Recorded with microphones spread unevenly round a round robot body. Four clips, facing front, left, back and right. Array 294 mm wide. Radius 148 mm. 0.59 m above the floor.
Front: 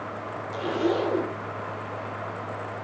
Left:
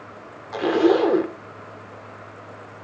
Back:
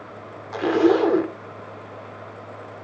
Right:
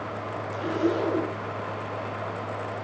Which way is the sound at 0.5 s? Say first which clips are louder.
Left 9 dB, back 8 dB; 140° left.